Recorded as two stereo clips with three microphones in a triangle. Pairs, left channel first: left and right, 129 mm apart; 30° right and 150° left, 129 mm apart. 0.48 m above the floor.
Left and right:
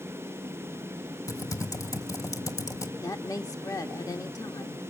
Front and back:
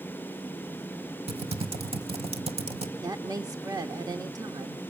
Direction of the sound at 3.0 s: 125° left.